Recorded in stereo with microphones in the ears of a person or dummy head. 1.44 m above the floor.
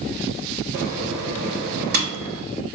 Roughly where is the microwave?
Right.